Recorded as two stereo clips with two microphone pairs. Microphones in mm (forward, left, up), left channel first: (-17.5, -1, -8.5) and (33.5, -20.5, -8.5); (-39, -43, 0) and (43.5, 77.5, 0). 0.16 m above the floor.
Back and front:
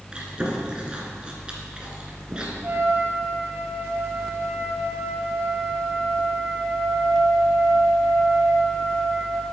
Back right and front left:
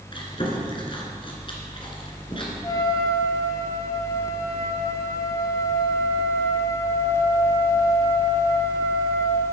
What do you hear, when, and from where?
0.1 s chewing: 85° right, 2 m
2.6 s a trumpet: 60° right, 1.5 m